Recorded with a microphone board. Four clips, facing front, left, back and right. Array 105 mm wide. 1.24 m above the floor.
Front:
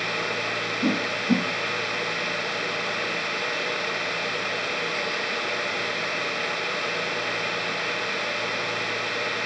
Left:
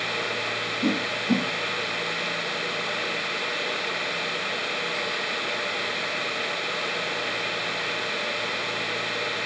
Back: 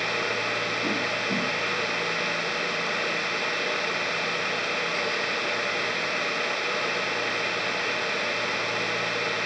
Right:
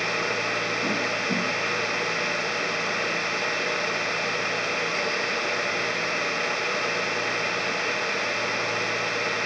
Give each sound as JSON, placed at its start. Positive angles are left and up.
{"t": 0.8, "sound": "a whoosh", "azimuth_deg": 35, "distance_m": 2.0}